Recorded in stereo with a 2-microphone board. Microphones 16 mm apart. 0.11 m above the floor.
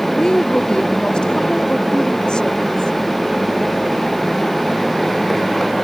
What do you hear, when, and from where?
0.1 s a woman speaking: 60° left (ahead or behind); by 2.9 s 70° left (ahead or behind)